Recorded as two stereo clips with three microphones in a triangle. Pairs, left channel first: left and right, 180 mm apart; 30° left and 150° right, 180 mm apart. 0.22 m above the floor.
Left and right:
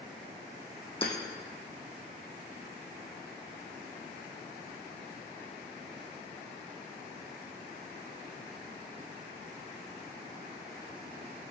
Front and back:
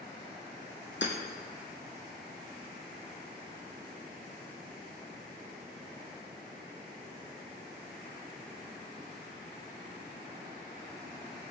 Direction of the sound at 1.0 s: 30° left.